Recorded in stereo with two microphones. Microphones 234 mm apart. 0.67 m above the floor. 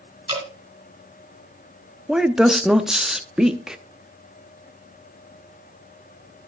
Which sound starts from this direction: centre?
A woman speaking, at 2.1 s.